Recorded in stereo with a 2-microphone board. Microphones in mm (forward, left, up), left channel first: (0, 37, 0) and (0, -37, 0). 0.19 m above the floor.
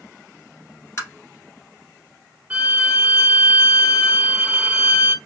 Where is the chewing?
No chewing in this recording.